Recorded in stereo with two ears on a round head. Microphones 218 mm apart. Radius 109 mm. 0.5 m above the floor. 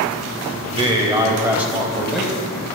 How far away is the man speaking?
About 2.5 m.